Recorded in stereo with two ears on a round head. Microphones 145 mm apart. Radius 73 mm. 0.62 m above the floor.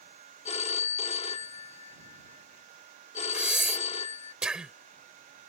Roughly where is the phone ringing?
Left.